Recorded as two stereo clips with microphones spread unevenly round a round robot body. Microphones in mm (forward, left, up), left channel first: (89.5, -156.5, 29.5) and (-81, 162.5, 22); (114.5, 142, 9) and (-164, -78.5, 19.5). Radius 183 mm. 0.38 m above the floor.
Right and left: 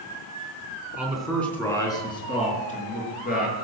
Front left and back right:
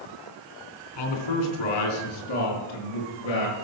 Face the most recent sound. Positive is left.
turn(degrees=0)